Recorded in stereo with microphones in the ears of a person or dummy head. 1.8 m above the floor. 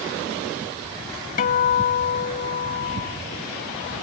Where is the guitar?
50° left (ahead or behind).